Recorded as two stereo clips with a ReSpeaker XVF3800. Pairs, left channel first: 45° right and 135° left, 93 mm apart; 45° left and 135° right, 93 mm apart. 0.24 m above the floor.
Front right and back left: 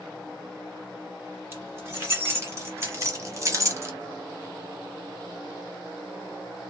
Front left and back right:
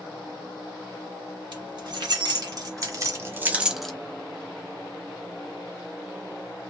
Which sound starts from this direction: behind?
Keys jangling, at 1.5 s.